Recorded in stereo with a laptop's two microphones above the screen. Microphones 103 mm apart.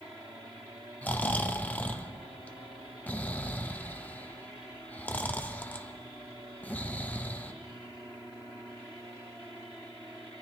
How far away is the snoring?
About 0.6 m.